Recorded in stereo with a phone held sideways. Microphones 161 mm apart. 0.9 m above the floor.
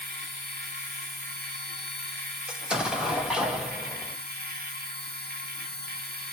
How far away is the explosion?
About 0.6 m.